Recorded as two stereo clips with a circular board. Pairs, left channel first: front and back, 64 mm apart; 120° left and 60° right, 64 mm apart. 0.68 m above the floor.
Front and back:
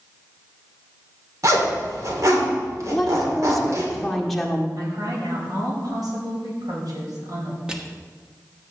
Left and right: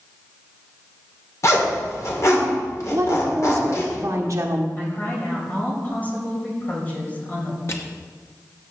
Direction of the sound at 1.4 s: 150° left.